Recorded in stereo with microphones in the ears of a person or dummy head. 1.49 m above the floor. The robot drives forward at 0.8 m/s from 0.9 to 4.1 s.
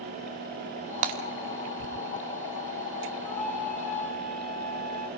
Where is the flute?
10° left (ahead or behind), 2.5 m.